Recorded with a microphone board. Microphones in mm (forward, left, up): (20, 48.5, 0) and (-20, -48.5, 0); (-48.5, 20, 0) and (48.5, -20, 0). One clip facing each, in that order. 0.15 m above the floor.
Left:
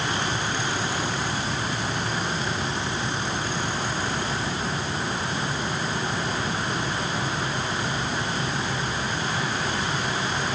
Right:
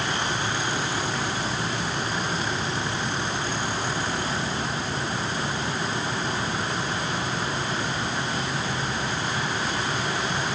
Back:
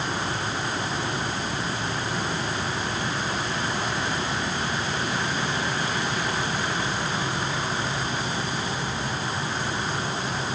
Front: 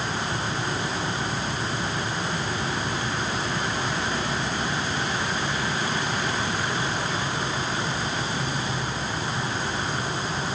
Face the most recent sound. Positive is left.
No sound to turn to.